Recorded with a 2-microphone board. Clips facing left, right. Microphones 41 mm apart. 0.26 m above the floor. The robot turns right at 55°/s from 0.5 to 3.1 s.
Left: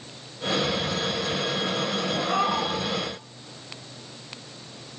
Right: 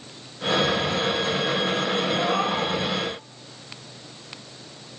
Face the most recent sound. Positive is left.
turn(degrees=-120)